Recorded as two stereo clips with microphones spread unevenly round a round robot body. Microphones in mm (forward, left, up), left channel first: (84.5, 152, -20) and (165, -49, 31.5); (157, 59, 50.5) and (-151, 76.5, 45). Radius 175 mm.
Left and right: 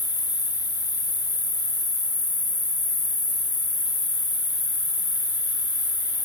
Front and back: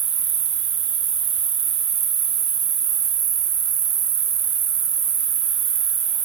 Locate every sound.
0.0 s an insect: 150° left, 0.8 m